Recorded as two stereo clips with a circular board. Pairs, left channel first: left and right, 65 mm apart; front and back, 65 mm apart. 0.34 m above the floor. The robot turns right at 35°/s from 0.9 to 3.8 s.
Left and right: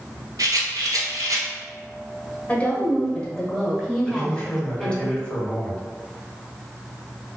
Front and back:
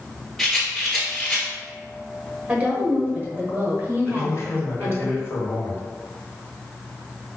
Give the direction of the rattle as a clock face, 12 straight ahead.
3 o'clock.